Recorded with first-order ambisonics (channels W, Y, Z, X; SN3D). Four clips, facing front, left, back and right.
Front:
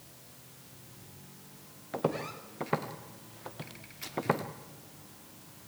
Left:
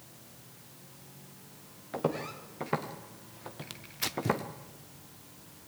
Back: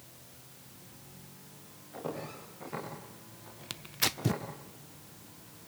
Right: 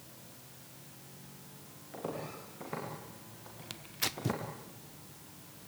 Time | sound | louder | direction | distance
1.9 | footsteps | left 7 dB, front 7 dB | 35° left | 3.5 m
3.7 | tearing paper | left 1 dB, back 9 dB | straight behind | 0.5 m